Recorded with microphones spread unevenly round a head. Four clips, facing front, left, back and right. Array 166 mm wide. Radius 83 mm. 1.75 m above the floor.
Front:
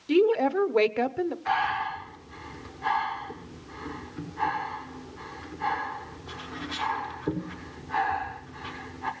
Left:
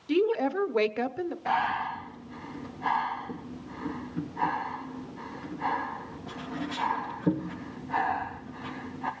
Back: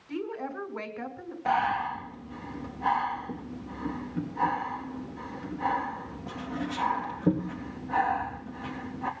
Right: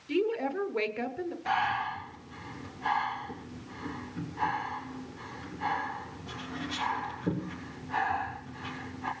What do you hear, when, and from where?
0.1 s a woman speaking: 20° left, 1.2 m
1.4 s breathing: 165° left, 3.5 m